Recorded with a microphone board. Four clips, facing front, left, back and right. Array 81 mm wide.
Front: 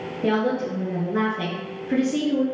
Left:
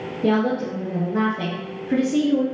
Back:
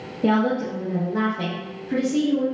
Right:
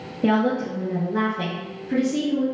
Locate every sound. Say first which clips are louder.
0.2 s a woman speaking: even, back 2 dB; 80° right, 1.4 m; by 2.5 s 50° left, 1.5 m